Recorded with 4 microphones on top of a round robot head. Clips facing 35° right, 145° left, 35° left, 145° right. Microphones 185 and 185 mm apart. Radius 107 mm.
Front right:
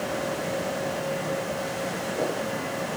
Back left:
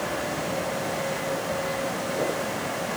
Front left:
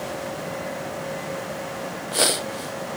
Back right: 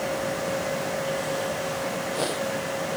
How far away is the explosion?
I don't hear an explosion.